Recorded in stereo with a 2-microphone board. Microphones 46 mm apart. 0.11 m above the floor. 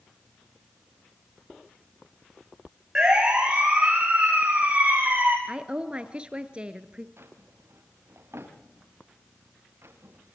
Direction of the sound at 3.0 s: 15° right (ahead or behind).